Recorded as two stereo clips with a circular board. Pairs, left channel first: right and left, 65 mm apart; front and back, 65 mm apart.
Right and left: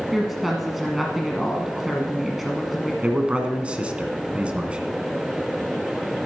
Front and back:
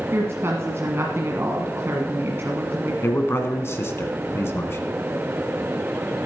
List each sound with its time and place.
0.1 s a woman speaking: 175° left, 1.3 m
3.0 s a man speaking: 25° left, 1.6 m